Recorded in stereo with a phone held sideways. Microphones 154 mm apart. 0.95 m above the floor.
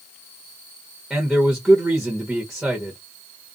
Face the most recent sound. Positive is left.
turn(degrees=-5)  # may be behind; listen again after turning